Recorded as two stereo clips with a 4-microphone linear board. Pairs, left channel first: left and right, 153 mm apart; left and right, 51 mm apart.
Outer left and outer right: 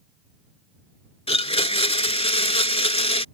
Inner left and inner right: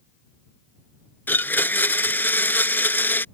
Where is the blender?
40° left (ahead or behind).